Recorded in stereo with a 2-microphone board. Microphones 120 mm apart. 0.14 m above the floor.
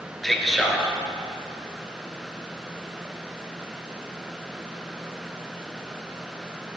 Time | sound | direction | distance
0.2 | a man speaking | centre (ahead or behind) | 2 m